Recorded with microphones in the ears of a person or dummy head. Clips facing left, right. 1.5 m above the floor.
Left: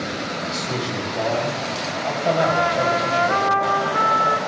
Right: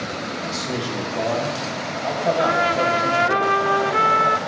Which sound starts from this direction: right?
A trumpet, at 2.4 s.